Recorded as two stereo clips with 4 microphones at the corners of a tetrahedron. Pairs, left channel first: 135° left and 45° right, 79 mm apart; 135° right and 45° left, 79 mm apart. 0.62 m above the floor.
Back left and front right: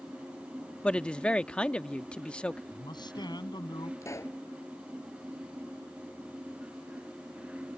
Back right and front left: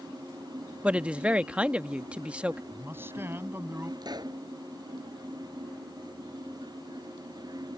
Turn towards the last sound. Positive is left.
turn(degrees=80)